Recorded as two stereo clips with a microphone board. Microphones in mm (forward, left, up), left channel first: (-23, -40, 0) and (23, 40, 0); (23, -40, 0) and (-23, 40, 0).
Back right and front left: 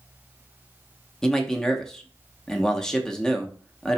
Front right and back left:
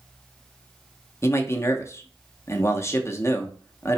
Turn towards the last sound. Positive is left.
turn(degrees=-45)